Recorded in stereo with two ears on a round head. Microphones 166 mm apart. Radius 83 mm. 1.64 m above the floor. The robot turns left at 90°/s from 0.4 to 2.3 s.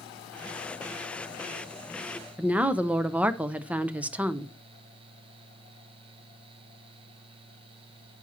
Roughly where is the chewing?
No chewing in this recording.